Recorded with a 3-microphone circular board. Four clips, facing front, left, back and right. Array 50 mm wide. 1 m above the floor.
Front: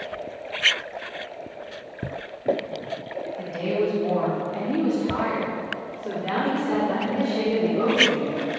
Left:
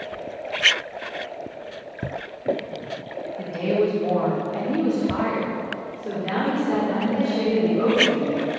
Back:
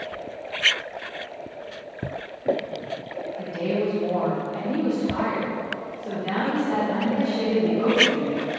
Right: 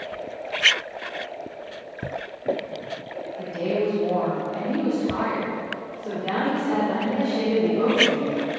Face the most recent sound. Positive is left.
turn(degrees=-25)